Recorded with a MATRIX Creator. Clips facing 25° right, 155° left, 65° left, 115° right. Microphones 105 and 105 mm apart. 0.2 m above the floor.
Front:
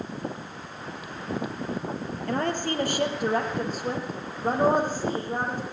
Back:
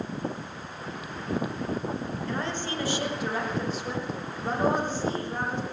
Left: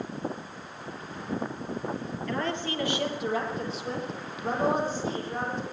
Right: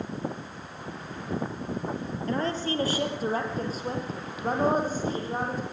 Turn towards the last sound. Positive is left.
turn(degrees=-65)